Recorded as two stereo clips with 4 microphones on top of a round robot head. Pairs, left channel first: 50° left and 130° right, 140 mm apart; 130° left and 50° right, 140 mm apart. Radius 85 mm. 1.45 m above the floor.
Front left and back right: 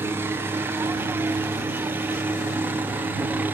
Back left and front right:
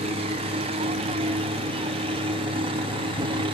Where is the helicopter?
65° right; by 3.5 s 60° right.